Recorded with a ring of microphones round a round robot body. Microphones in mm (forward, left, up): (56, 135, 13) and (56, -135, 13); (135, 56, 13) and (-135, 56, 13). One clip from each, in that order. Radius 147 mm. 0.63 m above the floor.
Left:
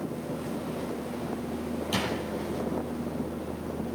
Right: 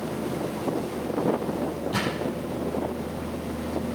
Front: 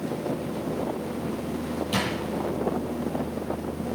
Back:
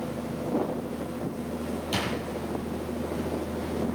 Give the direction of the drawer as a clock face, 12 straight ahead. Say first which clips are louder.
Right 1 dB, front 2 dB; 9 o'clock.